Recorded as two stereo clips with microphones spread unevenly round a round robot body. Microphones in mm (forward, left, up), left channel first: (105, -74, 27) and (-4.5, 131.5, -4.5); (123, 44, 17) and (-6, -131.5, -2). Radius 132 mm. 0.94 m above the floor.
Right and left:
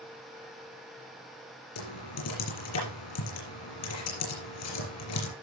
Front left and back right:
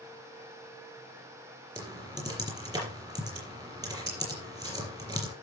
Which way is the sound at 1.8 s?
55° right.